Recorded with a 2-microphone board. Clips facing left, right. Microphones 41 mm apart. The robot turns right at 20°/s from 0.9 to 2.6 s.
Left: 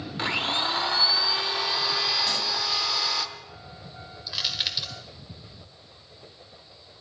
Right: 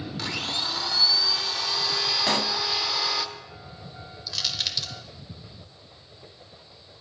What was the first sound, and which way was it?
A blender, 150° left.